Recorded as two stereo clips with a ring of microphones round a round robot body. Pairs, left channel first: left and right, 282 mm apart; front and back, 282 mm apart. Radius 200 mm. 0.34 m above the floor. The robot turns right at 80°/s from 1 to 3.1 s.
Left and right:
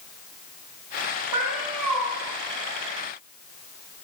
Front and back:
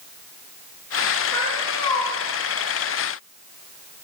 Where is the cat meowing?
85° right, 7.5 m; by 2.1 s 20° right, 7.5 m.